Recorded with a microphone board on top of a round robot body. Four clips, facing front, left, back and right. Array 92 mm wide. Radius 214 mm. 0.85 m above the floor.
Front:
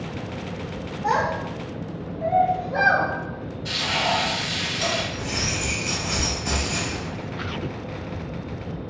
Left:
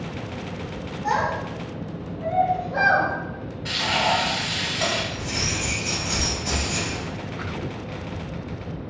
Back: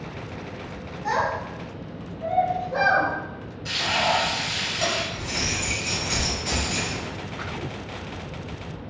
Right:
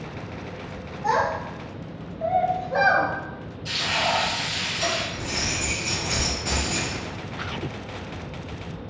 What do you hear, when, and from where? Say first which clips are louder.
1.0 s a child speaking: right 1 dB, front 2 dB; 45° right, 0.6 m; by 3.1 s 95° right, 1.5 m
3.6 s frying: left 2 dB, back 1 dB; 110° left, 1.1 m
5.1 s keys jangling: left 1 dB, front 1 dB; 40° right, 1.0 m